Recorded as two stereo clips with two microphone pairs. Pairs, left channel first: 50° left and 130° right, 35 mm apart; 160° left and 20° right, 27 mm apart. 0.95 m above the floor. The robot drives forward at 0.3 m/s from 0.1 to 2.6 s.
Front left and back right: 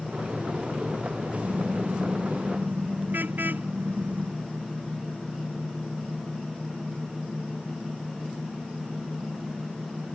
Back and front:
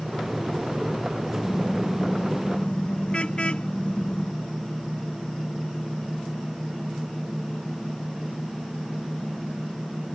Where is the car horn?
145° right; by 4.3 s 150° right.